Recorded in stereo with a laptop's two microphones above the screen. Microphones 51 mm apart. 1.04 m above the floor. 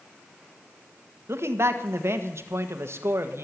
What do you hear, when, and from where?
1.3 s a man speaking: 60° right (ahead or behind), 1.5 m